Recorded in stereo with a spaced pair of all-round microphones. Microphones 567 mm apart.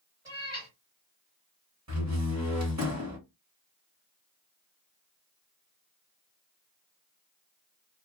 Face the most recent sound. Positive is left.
turn(degrees=-30)  # may be behind; listen again after turning